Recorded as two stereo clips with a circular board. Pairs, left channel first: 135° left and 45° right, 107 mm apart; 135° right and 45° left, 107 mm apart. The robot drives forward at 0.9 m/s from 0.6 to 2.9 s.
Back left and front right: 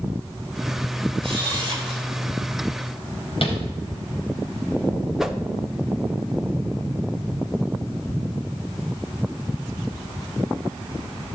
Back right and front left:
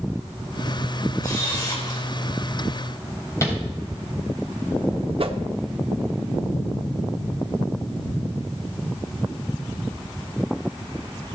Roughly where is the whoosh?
Ahead left.